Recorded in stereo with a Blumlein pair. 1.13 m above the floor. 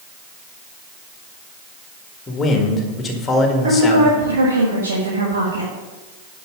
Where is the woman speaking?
70° right, 1.6 m.